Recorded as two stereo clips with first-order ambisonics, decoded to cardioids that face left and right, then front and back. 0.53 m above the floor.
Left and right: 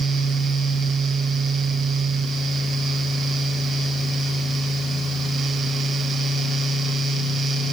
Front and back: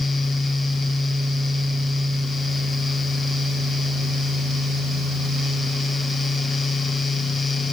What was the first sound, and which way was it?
Only background noise.